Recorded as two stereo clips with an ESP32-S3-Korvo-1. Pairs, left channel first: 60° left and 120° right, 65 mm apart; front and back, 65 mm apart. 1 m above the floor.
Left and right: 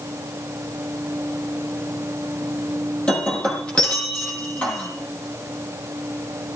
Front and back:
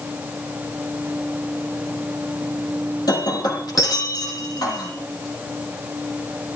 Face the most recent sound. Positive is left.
turn(degrees=-15)